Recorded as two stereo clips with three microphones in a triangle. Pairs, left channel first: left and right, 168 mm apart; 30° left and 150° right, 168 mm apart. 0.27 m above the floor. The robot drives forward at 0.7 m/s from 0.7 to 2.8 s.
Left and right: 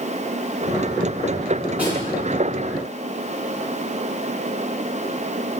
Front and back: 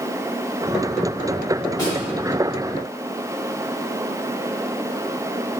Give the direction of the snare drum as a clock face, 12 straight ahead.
1 o'clock.